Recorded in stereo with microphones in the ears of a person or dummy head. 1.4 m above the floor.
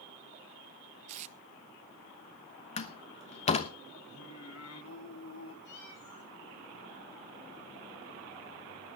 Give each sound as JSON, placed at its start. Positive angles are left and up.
{"t": 1.1, "sound": "tape being pulled", "side_deg": -40, "distance_m": 0.6}
{"t": 2.8, "sound": "a door slam", "side_deg": 40, "distance_m": 1.1}
{"t": 4.1, "sound": "singing", "side_deg": 75, "distance_m": 3.0}
{"t": 5.7, "sound": "a cat meowing", "side_deg": 65, "distance_m": 9.0}